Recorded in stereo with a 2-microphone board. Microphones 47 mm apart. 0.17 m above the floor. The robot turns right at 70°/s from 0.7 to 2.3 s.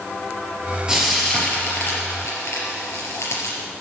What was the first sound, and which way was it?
Frying, 15° right (ahead or behind).